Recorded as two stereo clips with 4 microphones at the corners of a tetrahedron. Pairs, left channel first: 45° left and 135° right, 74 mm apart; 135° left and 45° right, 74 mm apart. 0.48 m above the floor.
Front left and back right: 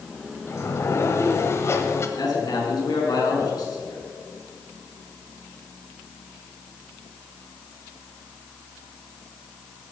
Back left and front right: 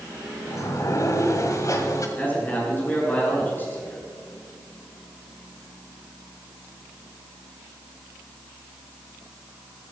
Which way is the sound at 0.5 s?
95° left.